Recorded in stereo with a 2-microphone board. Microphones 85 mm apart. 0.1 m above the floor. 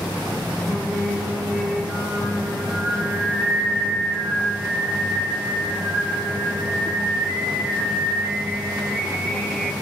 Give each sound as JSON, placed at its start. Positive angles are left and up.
{"t": 0.7, "sound": "singing", "side_deg": 0, "distance_m": 0.6}